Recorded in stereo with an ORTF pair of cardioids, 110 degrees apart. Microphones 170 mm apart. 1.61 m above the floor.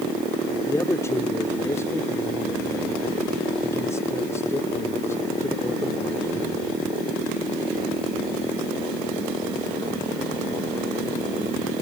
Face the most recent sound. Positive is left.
turn(degrees=15)